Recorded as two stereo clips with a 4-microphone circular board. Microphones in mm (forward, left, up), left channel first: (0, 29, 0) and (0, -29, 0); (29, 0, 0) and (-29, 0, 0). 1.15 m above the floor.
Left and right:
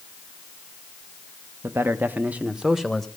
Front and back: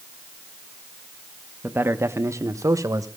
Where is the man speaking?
130° right, 1.2 m; by 3.1 s 175° left, 1.3 m.